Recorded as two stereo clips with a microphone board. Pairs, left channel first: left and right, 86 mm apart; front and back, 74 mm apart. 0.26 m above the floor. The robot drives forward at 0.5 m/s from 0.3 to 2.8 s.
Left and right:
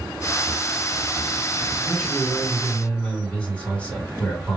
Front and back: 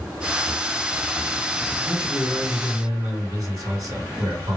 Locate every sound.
1.8 s a man speaking: 160° left, 2 m; by 4.6 s 165° left, 2.5 m